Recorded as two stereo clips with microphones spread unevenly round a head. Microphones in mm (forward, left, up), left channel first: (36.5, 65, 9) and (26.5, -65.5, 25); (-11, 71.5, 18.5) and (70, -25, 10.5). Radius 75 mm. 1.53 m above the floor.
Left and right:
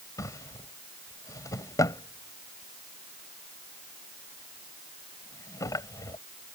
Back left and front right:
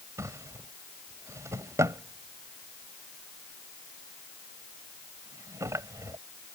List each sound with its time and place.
0.2 s a drawer: 20° left